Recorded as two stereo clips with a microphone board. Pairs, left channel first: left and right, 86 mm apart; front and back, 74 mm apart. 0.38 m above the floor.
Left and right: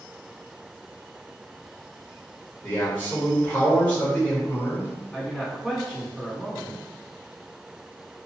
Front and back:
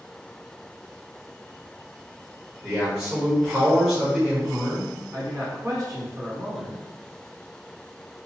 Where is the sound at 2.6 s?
120° left, 1.2 m.